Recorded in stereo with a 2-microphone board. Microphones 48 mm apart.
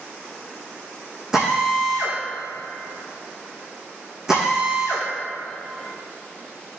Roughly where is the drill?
Centre.